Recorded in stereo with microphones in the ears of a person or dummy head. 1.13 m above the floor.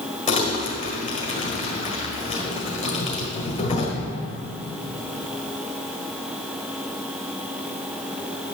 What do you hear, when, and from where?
0.3 s crumpling: 30° left (ahead or behind), 1.5 m